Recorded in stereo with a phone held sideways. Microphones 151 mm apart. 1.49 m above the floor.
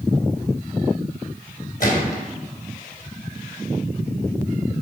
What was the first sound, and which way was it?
A gunshot, 70° left (ahead or behind).